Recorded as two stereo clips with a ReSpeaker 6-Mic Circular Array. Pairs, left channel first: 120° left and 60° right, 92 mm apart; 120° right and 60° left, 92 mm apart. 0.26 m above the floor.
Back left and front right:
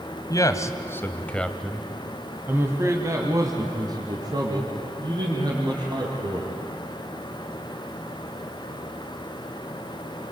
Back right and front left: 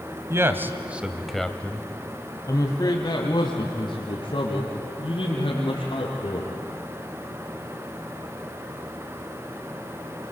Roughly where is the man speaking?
Left.